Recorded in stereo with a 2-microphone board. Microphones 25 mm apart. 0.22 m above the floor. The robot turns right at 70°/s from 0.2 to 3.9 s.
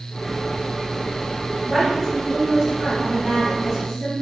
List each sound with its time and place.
1.7 s a woman speaking: 175° left, 1.4 m; by 4.1 s 30° right, 1.4 m